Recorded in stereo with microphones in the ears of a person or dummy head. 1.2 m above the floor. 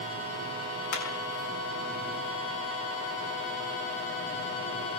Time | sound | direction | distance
0.9 | hammering | 65° left (ahead or behind) | 7.5 m